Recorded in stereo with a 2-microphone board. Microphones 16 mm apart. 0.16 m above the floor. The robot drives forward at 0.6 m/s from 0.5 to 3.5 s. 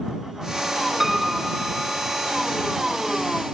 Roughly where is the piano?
Right.